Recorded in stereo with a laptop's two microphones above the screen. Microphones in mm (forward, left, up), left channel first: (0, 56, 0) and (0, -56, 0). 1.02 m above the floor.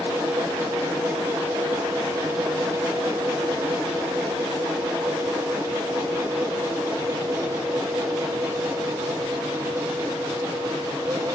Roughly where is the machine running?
Right.